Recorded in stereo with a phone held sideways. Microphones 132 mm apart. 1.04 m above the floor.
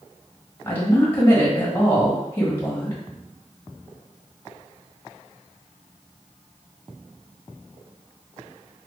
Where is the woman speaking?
20° left (ahead or behind), 1.5 m.